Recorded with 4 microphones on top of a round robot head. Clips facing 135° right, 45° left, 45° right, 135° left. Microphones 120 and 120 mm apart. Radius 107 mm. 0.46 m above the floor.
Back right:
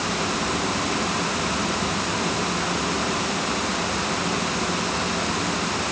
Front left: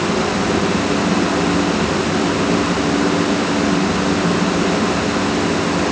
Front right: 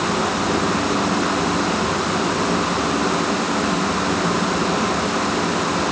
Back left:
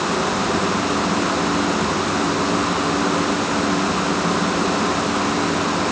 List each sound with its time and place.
Only background noise.